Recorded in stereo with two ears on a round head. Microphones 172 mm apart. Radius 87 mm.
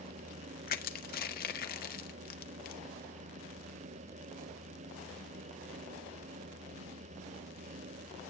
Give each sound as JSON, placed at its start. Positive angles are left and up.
{"t": 0.7, "sound": "crushing", "side_deg": 50, "distance_m": 1.6}